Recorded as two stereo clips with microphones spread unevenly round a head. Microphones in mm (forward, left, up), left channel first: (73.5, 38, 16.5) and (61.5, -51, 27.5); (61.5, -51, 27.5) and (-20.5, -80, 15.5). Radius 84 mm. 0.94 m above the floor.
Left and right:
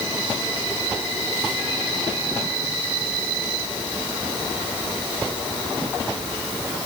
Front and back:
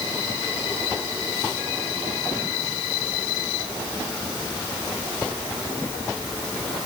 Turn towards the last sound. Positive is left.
No sound to turn to.